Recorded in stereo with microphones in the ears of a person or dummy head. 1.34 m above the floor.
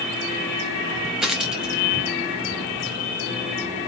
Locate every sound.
1.2 s a dropped coin: 5° right (ahead or behind), 0.9 m